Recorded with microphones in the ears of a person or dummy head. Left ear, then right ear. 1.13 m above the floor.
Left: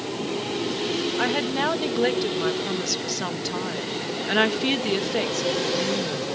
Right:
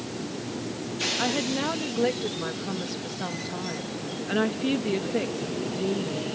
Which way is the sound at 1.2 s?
30° left (ahead or behind).